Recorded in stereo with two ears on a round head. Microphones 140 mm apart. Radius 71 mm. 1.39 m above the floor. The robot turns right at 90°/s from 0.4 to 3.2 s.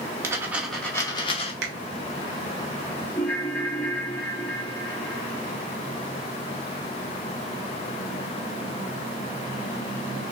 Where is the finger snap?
75° right (ahead or behind), 1.2 m; by 1.7 s 85° right, 1.2 m.